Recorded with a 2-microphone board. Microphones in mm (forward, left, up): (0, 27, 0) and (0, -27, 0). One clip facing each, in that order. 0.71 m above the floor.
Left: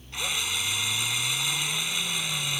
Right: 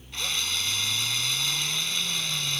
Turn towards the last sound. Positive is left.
turn(degrees=10)  # may be behind; listen again after turning